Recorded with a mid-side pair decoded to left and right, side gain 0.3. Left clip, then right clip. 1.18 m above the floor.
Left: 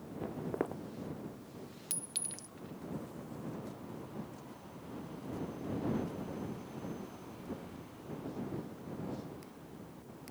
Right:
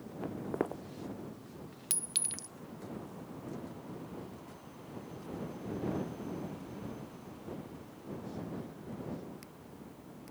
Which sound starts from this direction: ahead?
Footsteps, at 0.2 s.